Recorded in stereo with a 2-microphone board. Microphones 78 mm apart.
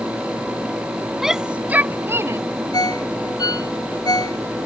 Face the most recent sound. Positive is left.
turn(degrees=55)  # may be behind; listen again after turning